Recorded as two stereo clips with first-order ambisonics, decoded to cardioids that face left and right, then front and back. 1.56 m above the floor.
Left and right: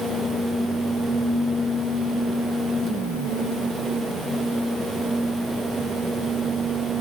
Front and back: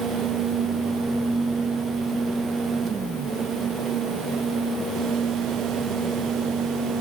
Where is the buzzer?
No buzzer in this recording.